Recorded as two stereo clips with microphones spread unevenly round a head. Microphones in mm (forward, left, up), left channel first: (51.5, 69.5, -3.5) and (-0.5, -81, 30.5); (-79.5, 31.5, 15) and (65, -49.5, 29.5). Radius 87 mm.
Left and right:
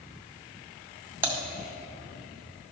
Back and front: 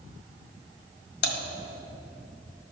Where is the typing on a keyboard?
Straight behind, 1.8 m.